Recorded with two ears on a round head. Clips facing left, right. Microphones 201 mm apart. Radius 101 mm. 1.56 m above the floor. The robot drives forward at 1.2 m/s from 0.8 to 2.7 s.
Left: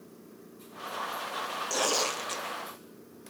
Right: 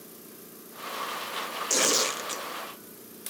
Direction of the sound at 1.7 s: 35° right (ahead or behind).